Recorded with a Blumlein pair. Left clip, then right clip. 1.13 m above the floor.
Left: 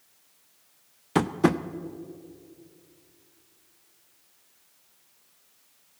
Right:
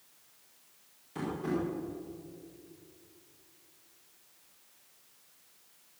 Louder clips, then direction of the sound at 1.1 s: Left 11 dB; 40° left.